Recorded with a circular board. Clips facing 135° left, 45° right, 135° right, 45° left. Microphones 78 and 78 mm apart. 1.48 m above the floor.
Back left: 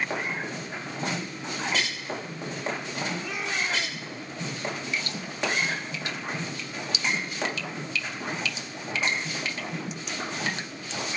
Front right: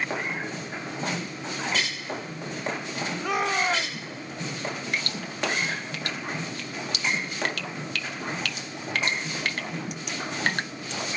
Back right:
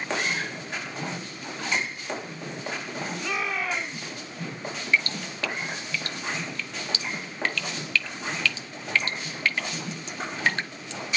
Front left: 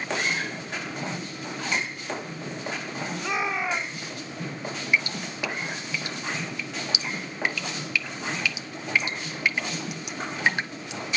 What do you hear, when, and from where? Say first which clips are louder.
3.2 s a shout: front right 6 dB, front left 3 dB; 25° right, 2.5 m
4.9 s dripping: front right 1 dB, even; 30° right, 1.2 m